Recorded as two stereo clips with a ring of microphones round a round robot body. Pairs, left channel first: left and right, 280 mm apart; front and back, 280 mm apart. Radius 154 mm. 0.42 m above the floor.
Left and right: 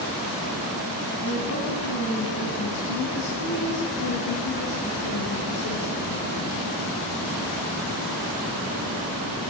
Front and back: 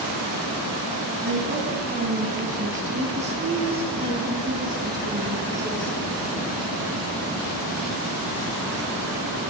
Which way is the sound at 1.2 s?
135° left.